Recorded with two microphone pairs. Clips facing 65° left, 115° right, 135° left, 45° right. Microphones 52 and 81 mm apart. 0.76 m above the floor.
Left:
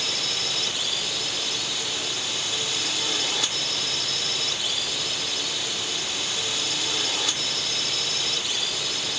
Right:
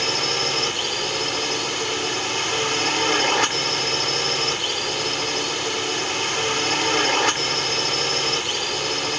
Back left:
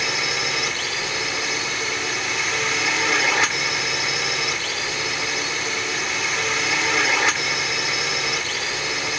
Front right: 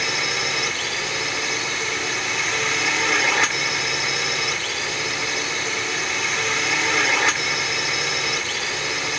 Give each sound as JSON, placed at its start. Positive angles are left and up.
{"t": 0.0, "sound": "a drone", "azimuth_deg": -140}